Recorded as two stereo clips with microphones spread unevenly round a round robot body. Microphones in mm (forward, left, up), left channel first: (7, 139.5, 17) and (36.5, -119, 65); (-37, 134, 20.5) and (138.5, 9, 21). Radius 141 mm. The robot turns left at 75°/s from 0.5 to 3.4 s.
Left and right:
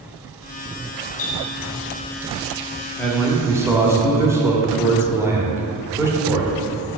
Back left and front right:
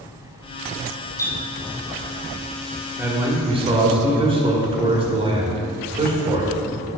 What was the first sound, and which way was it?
A running tap, 70° left.